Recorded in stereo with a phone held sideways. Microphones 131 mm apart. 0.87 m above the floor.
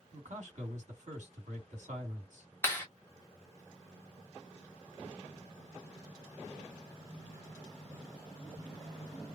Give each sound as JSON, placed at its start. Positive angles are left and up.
{"t": 0.1, "sound": "a man speaking", "side_deg": -65, "distance_m": 2.0}
{"t": 2.6, "sound": "a clap", "side_deg": 20, "distance_m": 1.3}